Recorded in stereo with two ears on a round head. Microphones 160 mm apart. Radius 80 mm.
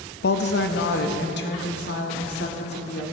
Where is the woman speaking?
55° left (ahead or behind), 0.7 m; by 3.0 s 60° left (ahead or behind), 2 m.